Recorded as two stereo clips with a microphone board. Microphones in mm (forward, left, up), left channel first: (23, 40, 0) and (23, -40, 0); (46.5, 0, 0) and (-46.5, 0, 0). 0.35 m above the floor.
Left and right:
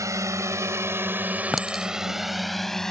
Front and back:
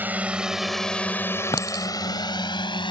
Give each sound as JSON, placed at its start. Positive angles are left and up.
{"t": 0.0, "sound": "a drone", "azimuth_deg": -115}
{"t": 1.5, "sound": "a clink", "azimuth_deg": 0}